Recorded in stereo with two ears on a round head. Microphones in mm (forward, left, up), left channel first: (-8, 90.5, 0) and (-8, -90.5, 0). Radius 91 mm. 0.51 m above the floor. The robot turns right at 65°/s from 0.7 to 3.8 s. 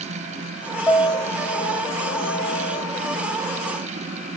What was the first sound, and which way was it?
A piano, straight ahead.